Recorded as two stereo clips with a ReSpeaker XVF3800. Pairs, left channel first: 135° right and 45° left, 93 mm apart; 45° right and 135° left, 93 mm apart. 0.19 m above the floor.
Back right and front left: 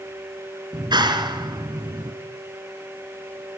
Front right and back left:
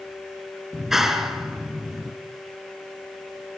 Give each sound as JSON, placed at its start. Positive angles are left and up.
{"t": 0.7, "sound": "a clap", "azimuth_deg": 50, "distance_m": 2.0}